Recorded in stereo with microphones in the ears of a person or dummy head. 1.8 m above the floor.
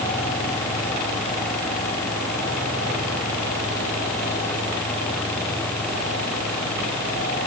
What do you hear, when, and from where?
Only background noise.